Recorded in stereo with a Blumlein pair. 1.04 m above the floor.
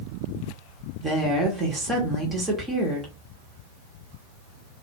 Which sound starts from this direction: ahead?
A woman speaking, at 1.0 s.